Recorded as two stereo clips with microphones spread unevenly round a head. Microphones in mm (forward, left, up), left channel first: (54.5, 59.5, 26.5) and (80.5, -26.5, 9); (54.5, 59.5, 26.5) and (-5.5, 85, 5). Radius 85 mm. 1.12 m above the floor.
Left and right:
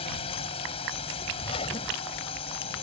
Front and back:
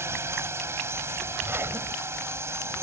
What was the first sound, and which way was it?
A drone, 110° left.